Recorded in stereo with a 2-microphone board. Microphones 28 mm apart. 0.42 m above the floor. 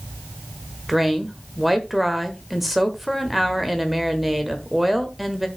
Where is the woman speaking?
5° right (ahead or behind), 1.3 m.